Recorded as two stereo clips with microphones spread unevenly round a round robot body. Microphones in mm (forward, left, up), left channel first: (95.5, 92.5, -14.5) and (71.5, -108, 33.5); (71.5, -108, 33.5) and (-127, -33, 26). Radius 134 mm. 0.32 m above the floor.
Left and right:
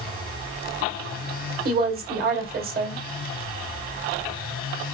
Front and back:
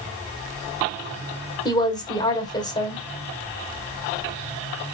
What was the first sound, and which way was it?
A woman speaking, 80° right.